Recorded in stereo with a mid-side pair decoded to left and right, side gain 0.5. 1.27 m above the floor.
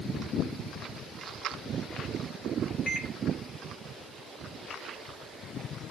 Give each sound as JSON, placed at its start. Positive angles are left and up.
{"t": 2.9, "sound": "a microwave", "azimuth_deg": 30, "distance_m": 1.0}